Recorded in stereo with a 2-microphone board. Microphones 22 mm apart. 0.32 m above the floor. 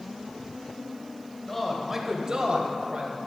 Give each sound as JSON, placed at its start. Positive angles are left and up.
{"t": 1.5, "sound": "a man speaking", "side_deg": 10, "distance_m": 1.1}